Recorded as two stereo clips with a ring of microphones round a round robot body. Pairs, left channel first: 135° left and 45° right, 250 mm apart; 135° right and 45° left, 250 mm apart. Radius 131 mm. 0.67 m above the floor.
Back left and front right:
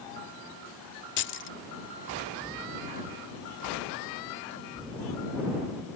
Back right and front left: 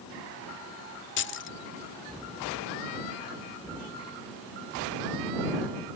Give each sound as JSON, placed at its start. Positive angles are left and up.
{"t": 1.2, "sound": "keys jangling", "azimuth_deg": 180}